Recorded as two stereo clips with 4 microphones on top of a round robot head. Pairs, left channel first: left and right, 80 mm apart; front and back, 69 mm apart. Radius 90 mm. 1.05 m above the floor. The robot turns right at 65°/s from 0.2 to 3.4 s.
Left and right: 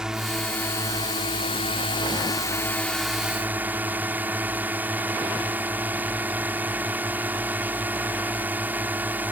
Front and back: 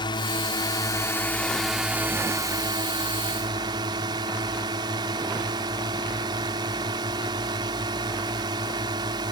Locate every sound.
0.0 s a drone: 5° right; by 9.3 s 160° right